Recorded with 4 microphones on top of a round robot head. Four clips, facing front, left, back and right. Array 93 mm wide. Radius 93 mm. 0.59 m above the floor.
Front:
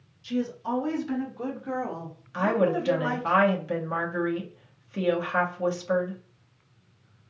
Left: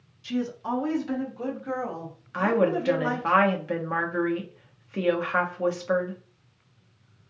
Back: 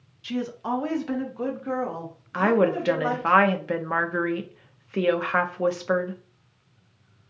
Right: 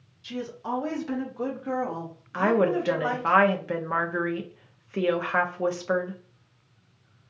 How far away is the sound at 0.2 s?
About 1.1 m.